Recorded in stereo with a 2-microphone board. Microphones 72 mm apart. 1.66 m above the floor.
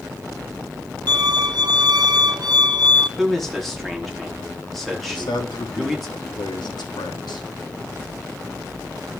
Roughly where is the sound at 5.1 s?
Left.